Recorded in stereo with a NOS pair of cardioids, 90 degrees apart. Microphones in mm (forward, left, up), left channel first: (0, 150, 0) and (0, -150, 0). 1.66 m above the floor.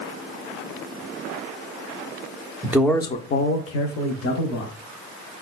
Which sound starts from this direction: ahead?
A man speaking, at 2.6 s.